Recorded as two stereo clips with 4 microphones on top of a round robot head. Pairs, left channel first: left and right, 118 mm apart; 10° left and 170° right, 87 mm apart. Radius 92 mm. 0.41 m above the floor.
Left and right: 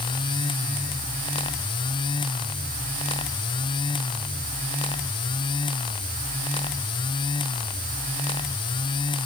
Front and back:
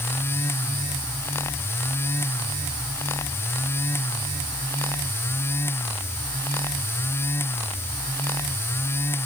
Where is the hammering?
No hammering in this recording.